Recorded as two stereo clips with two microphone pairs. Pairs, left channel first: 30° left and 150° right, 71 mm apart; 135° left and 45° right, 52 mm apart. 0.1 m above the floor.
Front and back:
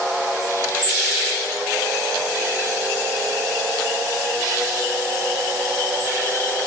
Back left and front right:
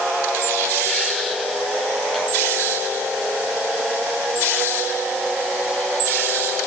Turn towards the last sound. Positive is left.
No sound to turn to.